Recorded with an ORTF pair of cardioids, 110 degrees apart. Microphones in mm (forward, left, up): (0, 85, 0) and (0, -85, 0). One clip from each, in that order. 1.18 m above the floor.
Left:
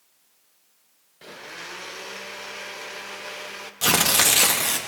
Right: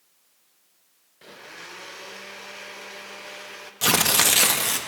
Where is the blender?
15° left, 0.7 m.